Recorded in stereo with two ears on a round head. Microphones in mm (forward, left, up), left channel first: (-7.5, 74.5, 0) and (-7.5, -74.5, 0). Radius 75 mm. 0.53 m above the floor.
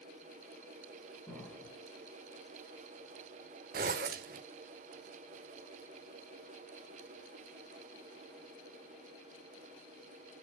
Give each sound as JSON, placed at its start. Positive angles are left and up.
{"t": 1.3, "sound": "an explosion", "side_deg": 5, "distance_m": 4.0}
{"t": 3.7, "sound": "a zipper", "side_deg": -55, "distance_m": 0.8}